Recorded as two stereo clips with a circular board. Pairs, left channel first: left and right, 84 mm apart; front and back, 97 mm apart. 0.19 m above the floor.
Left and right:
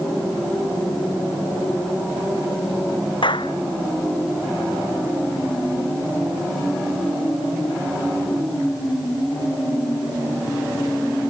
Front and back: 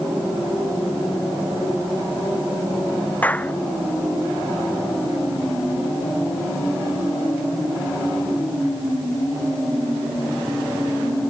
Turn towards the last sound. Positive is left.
turn(degrees=75)